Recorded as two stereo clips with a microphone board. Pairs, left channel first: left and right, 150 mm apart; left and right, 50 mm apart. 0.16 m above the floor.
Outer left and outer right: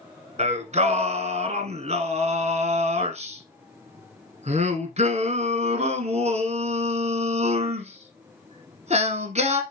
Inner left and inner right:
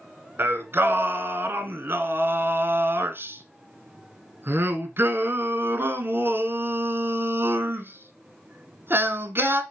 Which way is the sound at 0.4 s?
50° right (ahead or behind).